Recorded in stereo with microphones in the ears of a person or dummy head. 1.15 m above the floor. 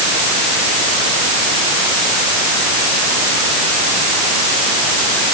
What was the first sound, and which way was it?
Only background noise.